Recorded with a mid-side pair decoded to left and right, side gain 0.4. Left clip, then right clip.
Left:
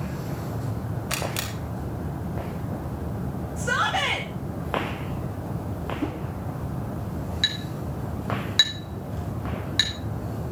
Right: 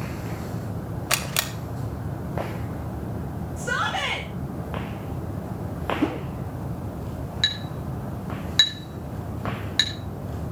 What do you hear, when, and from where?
1.1 s a camera shutter: 55° right, 1.9 m
3.6 s a shout: 10° left, 3 m
6.0 s a whoosh: 45° right, 1.0 m
7.4 s a clink: 10° right, 5 m